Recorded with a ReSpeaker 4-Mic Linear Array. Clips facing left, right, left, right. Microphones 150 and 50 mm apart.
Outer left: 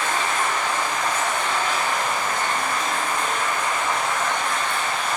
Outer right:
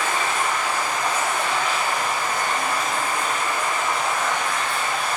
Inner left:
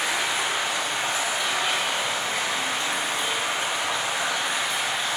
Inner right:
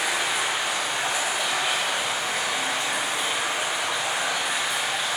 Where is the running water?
10° right (ahead or behind), 2 m.